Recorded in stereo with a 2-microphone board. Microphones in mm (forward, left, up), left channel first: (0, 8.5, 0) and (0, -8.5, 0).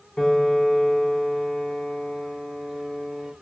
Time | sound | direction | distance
0.2 | a piano | 40° left (ahead or behind) | 1.2 m